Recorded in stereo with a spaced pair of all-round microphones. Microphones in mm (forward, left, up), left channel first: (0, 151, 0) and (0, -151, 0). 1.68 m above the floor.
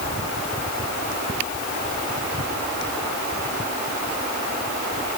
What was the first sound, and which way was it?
Only background noise.